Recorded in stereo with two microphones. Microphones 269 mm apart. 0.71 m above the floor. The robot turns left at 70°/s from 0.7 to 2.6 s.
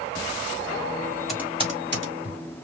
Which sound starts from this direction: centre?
Typing on a keyboard, at 1.3 s.